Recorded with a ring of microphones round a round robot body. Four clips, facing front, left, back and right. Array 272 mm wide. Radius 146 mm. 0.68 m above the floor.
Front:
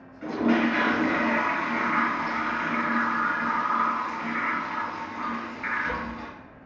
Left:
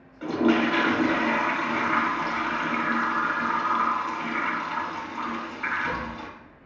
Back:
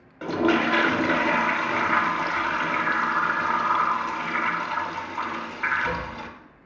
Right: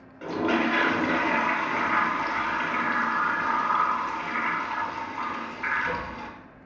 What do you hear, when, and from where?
0.2 s a toilet flushing: 175° left, 0.6 m